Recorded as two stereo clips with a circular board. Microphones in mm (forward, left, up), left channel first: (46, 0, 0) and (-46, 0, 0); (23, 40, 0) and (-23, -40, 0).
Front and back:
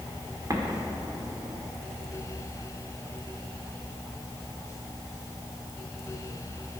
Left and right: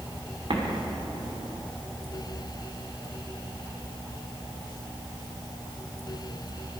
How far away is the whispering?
I don't hear whispering.